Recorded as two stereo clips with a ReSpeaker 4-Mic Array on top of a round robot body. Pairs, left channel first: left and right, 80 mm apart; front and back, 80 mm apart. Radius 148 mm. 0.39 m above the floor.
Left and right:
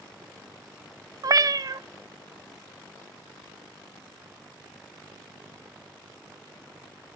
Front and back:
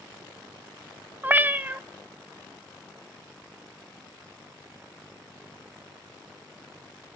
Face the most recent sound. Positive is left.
turn(degrees=-115)